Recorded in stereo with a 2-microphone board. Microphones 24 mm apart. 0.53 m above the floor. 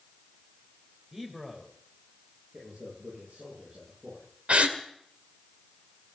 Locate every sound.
1.1 s a man speaking: 25° right (ahead or behind), 2.5 m
2.5 s a man speaking: 80° right, 10 m
4.5 s a gasp: 65° right (ahead or behind), 1.7 m